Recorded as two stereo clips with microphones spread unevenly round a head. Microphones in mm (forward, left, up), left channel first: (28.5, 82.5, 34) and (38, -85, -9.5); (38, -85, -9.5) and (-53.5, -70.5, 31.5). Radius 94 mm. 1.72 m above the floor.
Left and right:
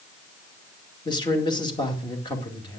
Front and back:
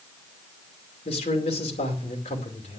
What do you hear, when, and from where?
1.1 s a man speaking: 30° left, 2.5 m